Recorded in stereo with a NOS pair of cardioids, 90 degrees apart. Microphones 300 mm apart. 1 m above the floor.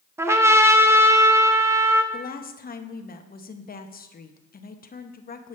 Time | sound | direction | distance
0.2 | a trumpet | 10° right | 0.7 m
2.1 | a woman speaking | 30° left | 0.9 m